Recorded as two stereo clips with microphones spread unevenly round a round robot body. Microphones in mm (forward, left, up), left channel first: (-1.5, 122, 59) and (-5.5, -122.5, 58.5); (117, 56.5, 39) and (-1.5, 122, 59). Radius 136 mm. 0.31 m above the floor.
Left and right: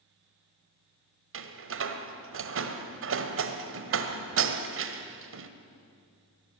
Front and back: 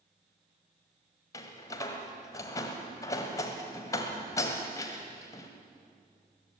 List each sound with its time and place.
1.3 s a door slam: 85° right, 1.5 m